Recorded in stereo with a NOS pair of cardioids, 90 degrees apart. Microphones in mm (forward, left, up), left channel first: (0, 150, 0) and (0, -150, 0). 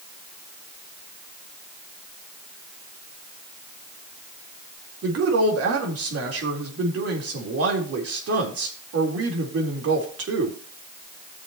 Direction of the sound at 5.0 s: 50° right.